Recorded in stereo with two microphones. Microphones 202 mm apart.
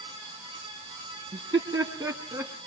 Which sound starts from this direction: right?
Laughter, at 1.3 s.